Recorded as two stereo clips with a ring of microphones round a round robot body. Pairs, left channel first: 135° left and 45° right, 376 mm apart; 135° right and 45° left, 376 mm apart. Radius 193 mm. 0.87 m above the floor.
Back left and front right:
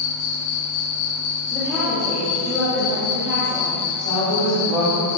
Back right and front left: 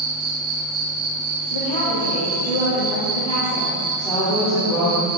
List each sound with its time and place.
0.0 s an insect: 115° left, 1.2 m
1.5 s a woman speaking: 130° right, 2 m
4.0 s a woman speaking: 140° left, 2.5 m